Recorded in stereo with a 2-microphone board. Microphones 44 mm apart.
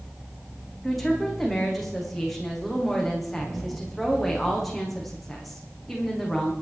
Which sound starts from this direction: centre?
A woman speaking, at 0.8 s.